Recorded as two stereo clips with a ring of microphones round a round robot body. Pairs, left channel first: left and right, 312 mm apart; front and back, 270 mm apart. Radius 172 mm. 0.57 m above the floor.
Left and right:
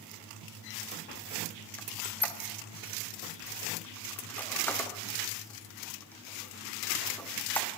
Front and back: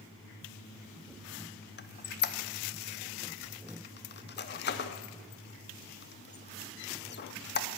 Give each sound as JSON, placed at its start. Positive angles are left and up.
{"t": 1.8, "sound": "a squeak", "azimuth_deg": 10, "distance_m": 0.7}